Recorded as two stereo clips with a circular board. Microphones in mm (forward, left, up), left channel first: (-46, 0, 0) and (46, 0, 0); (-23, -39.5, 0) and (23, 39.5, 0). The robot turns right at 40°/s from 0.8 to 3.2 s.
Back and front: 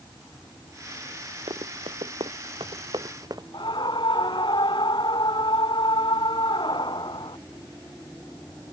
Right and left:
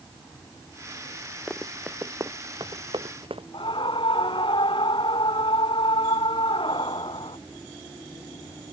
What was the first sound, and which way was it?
Running footsteps, 30° right.